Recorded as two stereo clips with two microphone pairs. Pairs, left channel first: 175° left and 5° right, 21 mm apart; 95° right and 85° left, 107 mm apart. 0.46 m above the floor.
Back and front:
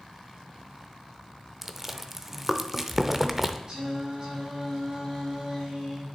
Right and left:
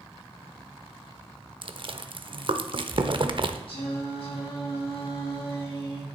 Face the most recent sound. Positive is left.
turn(degrees=-65)